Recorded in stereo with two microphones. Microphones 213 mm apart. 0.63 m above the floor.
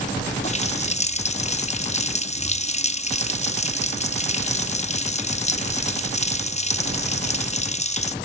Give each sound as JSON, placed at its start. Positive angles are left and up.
{"t": 0.4, "sound": "a running tap", "side_deg": 30, "distance_m": 0.6}